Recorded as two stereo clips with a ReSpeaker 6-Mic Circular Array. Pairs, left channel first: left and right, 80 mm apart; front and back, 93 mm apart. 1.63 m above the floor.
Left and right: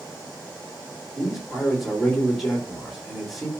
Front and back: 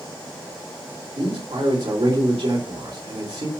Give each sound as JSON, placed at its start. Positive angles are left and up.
{"t": 1.1, "sound": "a man speaking", "azimuth_deg": 180, "distance_m": 3.0}